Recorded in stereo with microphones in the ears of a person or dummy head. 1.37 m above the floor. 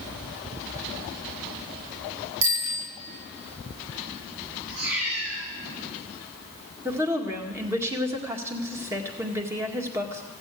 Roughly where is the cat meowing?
Right.